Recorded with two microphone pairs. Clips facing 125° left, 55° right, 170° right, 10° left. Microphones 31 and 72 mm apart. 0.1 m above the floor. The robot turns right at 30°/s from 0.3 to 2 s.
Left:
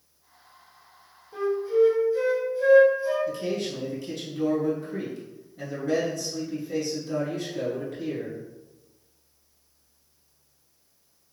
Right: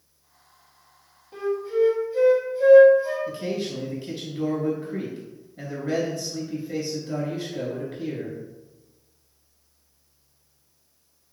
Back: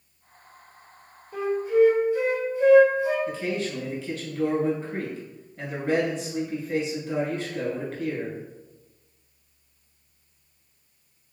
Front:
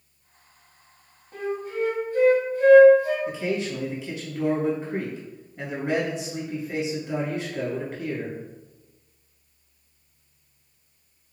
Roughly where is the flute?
Ahead.